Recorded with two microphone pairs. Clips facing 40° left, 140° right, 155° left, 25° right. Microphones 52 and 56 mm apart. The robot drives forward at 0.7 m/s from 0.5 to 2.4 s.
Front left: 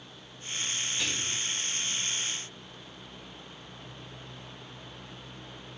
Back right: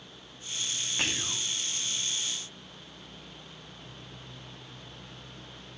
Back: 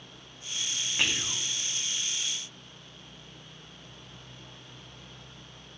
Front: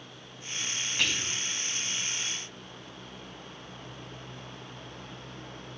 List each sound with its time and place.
1.0 s whispering: 135° right, 1.9 m; by 1.5 s 140° right, 2 m